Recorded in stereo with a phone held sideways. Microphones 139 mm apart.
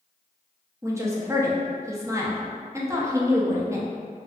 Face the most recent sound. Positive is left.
turn(degrees=-20)  # may be behind; listen again after turning